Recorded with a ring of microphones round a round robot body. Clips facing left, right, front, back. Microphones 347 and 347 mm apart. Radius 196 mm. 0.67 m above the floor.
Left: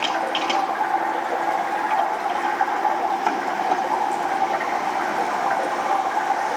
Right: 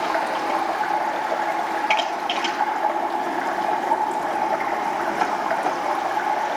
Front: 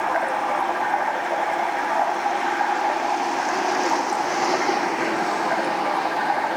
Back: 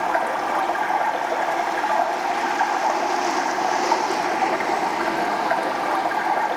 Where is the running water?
135° right, 9.5 m.